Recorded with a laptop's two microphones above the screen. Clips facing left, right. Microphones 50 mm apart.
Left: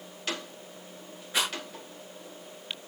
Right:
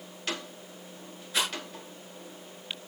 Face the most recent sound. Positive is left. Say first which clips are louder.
# left 1 dB
turn(degrees=25)  # may be behind; listen again after turning